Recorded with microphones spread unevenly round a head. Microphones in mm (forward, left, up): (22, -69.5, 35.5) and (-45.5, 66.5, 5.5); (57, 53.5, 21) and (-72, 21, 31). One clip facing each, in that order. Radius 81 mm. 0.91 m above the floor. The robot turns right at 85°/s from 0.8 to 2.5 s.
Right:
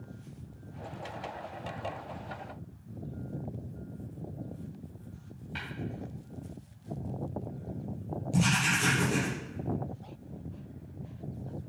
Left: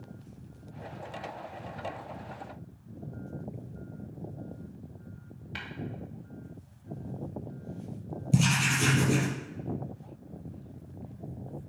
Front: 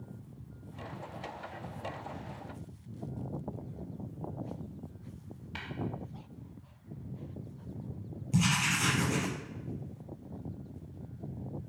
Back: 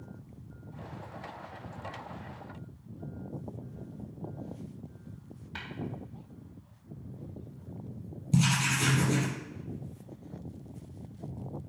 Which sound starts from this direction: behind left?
Writing, at 8.3 s.